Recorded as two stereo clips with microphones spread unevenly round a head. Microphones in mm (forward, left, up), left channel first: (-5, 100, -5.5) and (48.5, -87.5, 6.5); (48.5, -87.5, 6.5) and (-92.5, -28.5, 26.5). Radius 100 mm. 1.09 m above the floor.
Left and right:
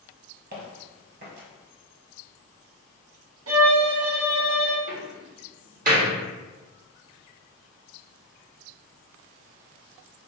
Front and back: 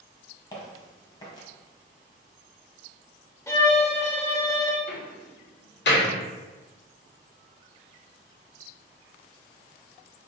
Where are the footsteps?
85° right, 1.6 m.